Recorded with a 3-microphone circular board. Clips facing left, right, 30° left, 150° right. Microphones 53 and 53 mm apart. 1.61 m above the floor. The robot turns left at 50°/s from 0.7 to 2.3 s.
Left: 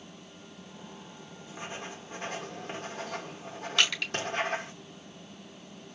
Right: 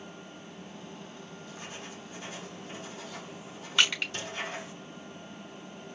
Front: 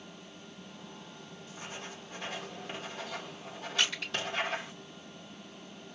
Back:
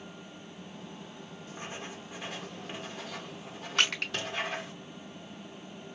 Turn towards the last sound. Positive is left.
turn(degrees=-160)